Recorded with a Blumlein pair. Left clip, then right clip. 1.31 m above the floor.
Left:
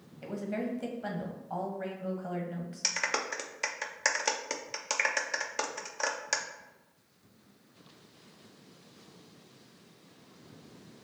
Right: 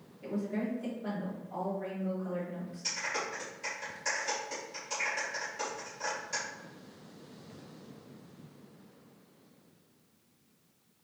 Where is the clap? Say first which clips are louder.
Left 4 dB; 40° left, 0.6 m.